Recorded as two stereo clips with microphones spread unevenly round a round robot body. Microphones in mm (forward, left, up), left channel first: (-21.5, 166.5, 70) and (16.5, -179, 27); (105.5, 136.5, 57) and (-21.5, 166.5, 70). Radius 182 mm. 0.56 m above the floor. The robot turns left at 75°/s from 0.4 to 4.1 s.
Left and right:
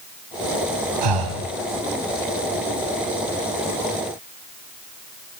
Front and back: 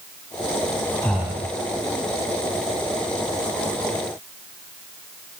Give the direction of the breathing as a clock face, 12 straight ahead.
3 o'clock.